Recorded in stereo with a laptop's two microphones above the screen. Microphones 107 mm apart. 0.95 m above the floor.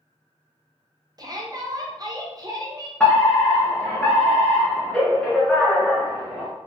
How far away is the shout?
About 0.8 m.